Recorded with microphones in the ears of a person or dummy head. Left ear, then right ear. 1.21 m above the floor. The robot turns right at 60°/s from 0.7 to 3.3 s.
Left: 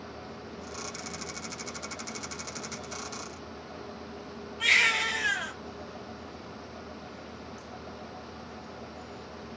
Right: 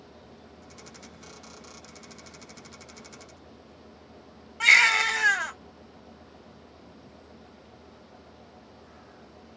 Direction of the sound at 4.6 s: 30° right (ahead or behind).